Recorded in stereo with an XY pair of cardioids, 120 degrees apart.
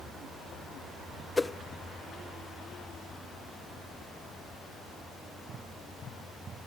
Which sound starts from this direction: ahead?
A whoosh, at 1.4 s.